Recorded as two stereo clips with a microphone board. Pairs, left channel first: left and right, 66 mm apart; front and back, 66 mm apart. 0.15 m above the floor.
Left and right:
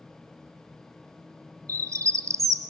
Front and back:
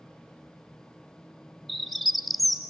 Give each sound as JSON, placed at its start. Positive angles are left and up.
{"t": 1.7, "sound": "a bird", "azimuth_deg": -90, "distance_m": 0.7}